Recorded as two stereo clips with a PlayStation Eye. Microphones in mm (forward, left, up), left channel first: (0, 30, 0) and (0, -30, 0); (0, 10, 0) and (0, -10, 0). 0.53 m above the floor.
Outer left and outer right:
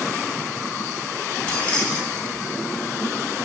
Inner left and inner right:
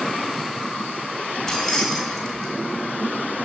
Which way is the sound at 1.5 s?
20° left (ahead or behind).